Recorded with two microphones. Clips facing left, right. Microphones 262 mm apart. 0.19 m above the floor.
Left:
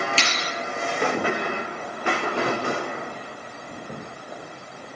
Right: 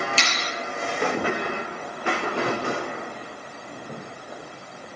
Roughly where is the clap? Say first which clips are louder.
Left 1 dB; left.